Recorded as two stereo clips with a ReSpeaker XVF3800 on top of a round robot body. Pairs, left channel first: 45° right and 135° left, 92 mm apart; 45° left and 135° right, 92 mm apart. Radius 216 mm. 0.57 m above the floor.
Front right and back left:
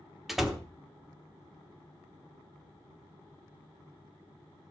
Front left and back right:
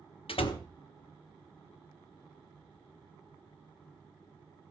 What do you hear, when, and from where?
0.3 s a door slam: 50° left, 1.3 m